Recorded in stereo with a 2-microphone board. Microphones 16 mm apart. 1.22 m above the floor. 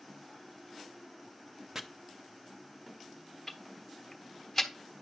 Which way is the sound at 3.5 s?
10° left (ahead or behind).